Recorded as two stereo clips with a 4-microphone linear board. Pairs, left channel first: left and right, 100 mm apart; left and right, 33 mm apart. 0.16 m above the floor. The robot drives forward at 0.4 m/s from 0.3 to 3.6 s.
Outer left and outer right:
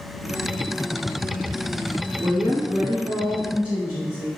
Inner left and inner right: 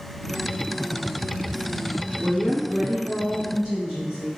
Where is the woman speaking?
25° right (ahead or behind), 1.3 m; by 4.3 s 20° right (ahead or behind), 1.6 m.